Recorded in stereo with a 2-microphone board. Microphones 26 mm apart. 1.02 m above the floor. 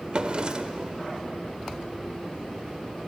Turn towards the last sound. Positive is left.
turn(degrees=-40)  # may be behind; listen again after turning